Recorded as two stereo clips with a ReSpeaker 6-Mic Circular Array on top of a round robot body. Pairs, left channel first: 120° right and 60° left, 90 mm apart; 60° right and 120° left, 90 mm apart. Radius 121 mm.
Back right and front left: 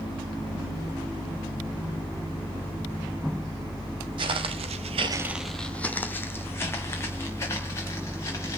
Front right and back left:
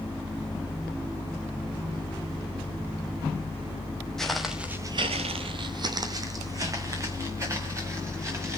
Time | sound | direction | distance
4.2 | footsteps | 25° left | 1.0 m